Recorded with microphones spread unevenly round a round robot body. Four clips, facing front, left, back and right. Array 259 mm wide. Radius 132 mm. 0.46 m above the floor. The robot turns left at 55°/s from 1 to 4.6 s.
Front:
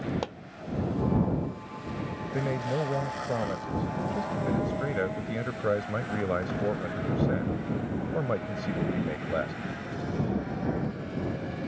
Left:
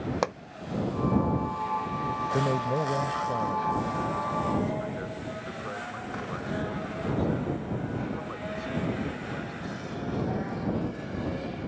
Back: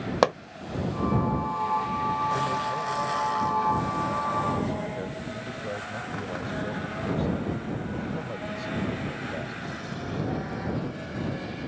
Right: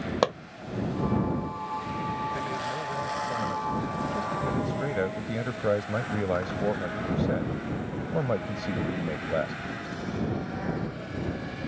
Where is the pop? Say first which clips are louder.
Right 5 dB, back 13 dB; 155° right.